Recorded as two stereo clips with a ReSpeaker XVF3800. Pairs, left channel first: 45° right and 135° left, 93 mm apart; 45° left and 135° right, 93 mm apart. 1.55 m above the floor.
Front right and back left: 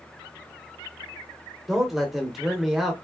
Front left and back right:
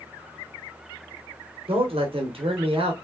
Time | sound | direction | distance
1.7 | a man speaking | 140° right | 1.3 m